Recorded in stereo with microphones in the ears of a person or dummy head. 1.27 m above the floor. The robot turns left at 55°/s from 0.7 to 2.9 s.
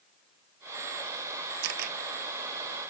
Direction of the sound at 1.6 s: 70° right (ahead or behind).